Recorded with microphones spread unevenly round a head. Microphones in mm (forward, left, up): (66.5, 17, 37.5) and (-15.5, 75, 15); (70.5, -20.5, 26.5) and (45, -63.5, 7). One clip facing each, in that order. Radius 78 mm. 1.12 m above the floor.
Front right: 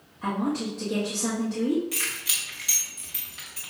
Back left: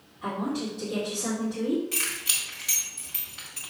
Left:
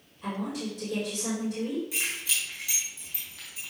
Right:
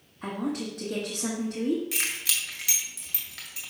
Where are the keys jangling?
115° right, 1.8 m.